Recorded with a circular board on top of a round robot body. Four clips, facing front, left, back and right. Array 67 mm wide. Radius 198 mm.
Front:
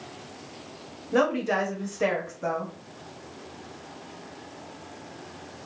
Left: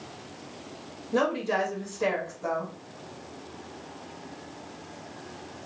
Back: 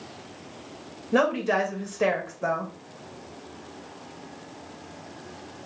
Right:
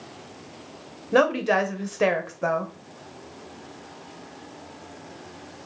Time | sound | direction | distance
1.1 | a woman speaking | 100° right | 1.3 m